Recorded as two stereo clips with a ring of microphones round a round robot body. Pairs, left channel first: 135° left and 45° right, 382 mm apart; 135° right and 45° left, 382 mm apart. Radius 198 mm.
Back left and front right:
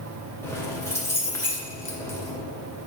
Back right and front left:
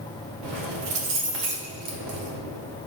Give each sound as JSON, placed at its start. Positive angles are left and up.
{"t": 0.4, "sound": "keys jangling", "azimuth_deg": 50, "distance_m": 1.8}